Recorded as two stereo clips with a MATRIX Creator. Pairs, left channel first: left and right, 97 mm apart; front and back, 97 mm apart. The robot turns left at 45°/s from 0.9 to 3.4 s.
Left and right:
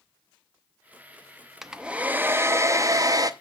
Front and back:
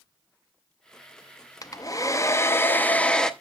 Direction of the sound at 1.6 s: 5° right.